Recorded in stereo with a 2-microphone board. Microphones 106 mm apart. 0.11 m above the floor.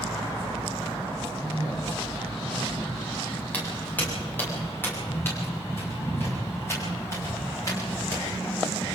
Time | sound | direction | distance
1.4 | a man speaking | 15° right (ahead or behind) | 7.5 m
3.5 | footsteps | 15° left (ahead or behind) | 9.5 m